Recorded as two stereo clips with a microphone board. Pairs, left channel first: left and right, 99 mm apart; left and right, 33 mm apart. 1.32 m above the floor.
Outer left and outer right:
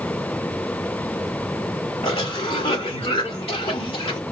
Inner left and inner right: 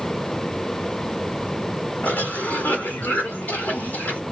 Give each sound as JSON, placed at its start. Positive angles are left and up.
{"t": 2.0, "sound": "a cough", "side_deg": 80, "distance_m": 3.0}